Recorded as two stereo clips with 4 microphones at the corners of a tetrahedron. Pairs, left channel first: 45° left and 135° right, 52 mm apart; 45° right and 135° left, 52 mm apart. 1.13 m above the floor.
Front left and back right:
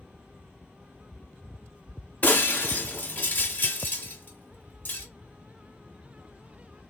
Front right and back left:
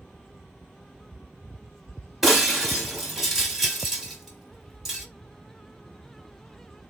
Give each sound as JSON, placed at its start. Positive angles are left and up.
{"t": 2.2, "sound": "breaking glass", "azimuth_deg": 50, "distance_m": 1.2}